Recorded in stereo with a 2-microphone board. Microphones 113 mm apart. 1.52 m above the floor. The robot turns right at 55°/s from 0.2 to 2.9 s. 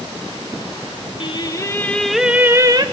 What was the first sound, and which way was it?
Singing, 130° left.